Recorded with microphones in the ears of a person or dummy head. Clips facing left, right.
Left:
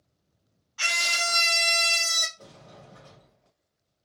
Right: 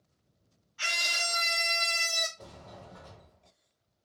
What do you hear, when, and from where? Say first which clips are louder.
0.8 s a scream: left 5 dB; 65° left (ahead or behind), 0.7 m
2.4 s a sliding door: right 1 dB; 15° right (ahead or behind), 1.1 m